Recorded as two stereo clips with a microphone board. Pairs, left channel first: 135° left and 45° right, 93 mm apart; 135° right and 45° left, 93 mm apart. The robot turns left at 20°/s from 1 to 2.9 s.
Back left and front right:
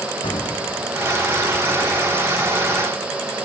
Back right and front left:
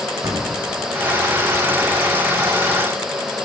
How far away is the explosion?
About 2 m.